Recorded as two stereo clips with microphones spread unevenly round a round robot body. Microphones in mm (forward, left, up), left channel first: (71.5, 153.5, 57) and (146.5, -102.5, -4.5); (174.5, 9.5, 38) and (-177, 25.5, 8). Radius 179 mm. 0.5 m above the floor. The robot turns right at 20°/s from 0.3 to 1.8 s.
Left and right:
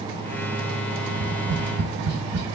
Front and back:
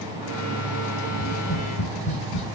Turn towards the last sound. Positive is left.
turn(degrees=-60)